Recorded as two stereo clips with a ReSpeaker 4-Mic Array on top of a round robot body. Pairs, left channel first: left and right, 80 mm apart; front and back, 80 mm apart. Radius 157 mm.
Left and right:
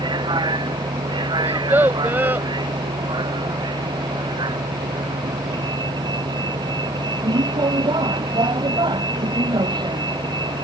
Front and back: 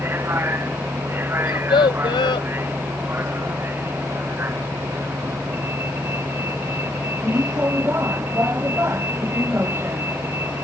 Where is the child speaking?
20° right.